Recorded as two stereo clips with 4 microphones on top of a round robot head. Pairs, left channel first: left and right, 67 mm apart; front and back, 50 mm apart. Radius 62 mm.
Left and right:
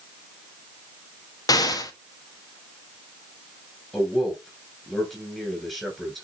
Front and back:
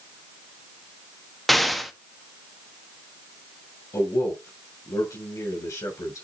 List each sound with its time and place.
1.5 s an explosion: 90° left, 1.3 m
3.9 s a man speaking: 5° left, 6 m